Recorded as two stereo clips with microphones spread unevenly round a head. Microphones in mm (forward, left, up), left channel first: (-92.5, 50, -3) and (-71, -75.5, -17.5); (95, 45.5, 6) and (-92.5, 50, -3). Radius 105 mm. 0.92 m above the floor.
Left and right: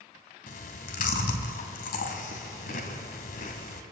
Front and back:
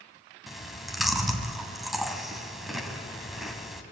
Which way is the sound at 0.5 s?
90° left.